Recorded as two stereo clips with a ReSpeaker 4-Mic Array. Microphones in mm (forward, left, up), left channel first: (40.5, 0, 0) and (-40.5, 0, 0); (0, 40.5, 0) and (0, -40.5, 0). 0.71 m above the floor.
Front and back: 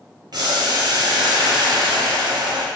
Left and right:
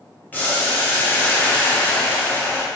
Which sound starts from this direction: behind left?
Boiling, at 0.3 s.